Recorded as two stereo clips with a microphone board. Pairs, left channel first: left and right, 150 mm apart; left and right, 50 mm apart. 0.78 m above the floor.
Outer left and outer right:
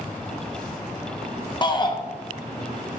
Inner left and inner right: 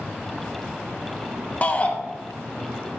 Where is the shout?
30° left (ahead or behind), 1.0 m.